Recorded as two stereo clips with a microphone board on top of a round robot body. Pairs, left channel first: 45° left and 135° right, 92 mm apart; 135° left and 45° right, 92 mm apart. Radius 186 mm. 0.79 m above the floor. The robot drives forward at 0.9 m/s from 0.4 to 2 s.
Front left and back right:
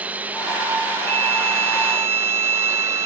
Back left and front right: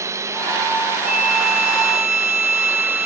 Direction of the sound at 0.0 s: 70° right.